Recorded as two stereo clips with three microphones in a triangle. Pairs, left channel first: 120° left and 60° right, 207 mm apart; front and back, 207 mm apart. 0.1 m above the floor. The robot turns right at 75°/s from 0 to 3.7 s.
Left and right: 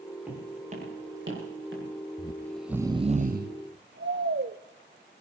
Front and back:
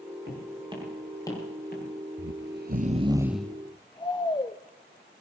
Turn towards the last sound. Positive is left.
turn(degrees=-65)